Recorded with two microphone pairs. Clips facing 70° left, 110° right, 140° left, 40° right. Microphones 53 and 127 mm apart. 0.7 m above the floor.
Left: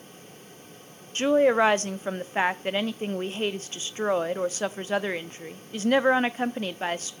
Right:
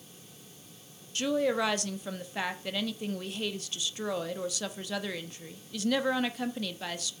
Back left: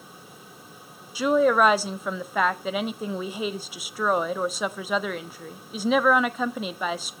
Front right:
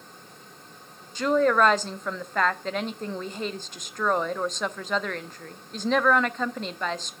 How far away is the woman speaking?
About 0.8 m.